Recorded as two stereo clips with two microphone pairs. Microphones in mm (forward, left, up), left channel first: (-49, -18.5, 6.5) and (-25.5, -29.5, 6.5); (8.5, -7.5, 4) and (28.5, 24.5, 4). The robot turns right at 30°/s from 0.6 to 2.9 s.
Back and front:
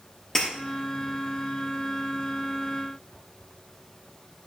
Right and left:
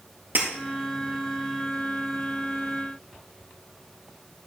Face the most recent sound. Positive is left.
turn(degrees=160)